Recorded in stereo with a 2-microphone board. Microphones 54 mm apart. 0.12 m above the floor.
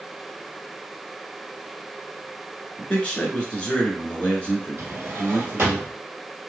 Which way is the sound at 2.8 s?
20° left (ahead or behind).